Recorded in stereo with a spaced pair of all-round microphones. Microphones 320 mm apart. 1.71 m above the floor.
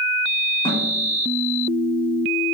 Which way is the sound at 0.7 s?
15° left (ahead or behind).